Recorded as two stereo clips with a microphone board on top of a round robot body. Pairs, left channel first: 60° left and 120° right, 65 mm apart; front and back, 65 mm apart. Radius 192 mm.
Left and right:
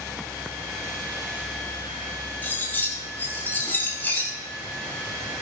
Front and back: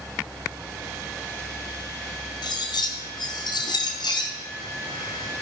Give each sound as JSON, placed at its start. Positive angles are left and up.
{"t": 2.4, "sound": "cutlery clinking", "azimuth_deg": -5, "distance_m": 1.5}